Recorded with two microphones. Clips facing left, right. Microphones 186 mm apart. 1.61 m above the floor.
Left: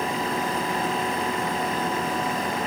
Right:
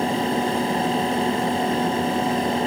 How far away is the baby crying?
No baby crying in this recording.